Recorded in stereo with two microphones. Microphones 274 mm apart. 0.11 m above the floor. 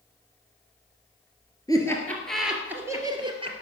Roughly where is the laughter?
Centre.